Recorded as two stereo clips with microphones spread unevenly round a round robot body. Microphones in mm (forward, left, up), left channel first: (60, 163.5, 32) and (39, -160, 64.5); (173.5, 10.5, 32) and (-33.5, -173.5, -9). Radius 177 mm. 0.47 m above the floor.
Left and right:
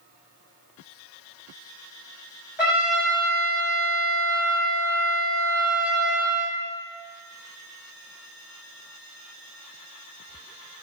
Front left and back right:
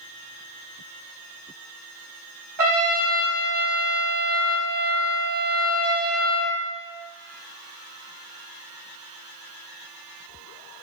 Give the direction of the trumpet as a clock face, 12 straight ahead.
6 o'clock.